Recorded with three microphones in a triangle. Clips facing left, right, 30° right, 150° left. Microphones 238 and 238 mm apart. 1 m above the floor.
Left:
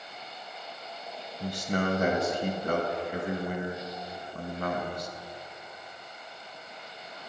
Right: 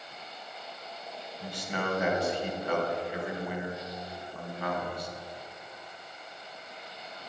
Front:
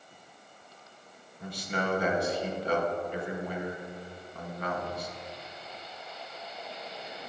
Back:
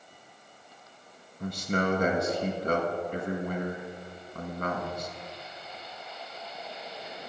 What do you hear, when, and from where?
1.4 s a man speaking: 120° left, 1.4 m